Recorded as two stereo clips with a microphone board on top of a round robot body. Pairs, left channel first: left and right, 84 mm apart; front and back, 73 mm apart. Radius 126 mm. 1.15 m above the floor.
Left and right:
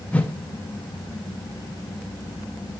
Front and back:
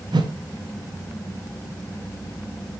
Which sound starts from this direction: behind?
A whoosh, at 0.1 s.